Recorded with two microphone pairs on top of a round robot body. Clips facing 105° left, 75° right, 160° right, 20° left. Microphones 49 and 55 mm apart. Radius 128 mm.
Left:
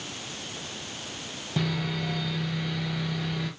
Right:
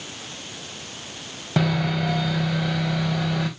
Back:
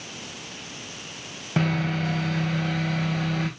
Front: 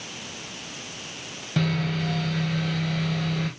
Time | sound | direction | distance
1.6 | sawing | 95° right | 1.4 m